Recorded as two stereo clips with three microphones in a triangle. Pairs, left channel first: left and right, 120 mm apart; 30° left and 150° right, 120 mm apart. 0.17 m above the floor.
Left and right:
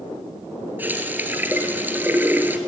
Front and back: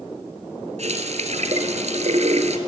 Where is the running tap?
165° right, 1.8 m.